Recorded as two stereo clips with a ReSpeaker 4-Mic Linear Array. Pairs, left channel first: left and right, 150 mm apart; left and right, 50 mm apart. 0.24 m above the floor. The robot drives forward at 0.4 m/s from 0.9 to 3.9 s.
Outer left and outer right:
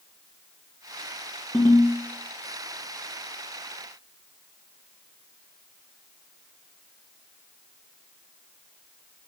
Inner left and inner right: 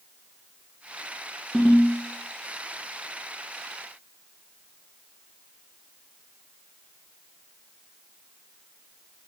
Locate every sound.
1.5 s a ringtone: 15° left (ahead or behind), 1.1 m